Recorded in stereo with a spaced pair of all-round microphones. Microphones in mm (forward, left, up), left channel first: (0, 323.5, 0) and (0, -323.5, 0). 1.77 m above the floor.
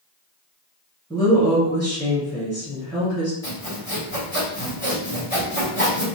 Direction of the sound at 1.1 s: Centre (ahead or behind).